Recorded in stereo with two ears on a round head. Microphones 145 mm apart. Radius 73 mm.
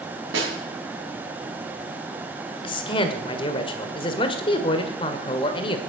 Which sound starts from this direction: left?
A man speaking, at 2.6 s.